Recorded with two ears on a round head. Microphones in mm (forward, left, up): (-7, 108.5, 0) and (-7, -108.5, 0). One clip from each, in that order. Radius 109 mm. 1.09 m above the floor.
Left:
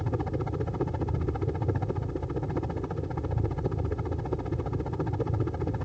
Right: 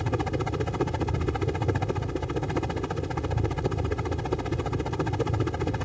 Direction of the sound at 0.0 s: 70° right (ahead or behind).